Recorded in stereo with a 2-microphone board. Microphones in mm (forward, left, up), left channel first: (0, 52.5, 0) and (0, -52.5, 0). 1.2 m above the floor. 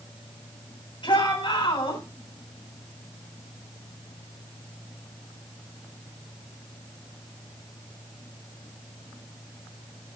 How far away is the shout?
About 9 m.